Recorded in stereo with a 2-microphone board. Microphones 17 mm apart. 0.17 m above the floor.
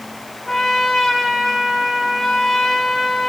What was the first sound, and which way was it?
A trumpet, 30° left (ahead or behind).